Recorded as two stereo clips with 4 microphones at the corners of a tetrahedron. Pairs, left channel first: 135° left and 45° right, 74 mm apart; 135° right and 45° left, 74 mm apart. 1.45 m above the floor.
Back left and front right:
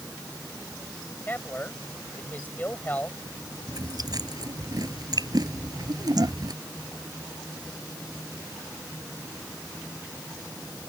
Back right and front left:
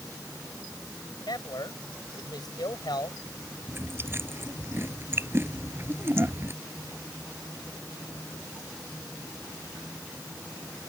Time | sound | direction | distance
1.3 | a man speaking | 155° right | ?
3.7 | chewing | 15° right | ?